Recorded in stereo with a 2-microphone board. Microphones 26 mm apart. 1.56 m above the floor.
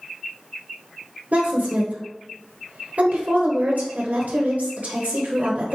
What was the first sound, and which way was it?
A woman speaking, 90° right.